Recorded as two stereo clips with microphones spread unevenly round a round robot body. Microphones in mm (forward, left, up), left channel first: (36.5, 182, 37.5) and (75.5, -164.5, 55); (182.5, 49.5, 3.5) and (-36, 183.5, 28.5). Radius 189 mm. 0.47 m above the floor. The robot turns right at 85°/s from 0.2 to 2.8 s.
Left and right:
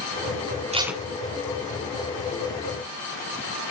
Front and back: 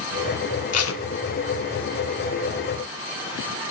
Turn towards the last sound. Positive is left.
turn(degrees=165)